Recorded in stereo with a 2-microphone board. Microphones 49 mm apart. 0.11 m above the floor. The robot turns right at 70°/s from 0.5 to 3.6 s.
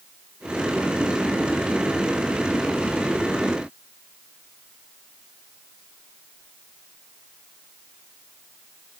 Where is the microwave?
I don't hear a microwave.